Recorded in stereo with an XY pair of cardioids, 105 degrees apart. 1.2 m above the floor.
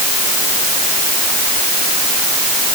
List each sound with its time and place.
Only background noise.